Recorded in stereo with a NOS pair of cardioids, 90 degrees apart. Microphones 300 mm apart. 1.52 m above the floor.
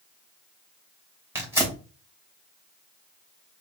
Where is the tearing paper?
5° right, 2.5 m.